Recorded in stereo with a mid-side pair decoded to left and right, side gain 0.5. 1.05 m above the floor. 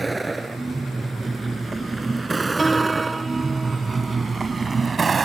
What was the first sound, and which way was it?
A vehicle, 20° right.